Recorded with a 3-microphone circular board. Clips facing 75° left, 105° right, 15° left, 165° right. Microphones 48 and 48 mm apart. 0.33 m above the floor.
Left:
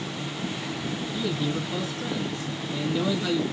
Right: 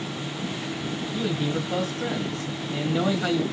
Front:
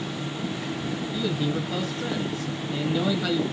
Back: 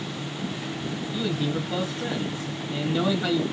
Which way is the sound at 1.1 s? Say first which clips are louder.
Right 2 dB, even; 90° right.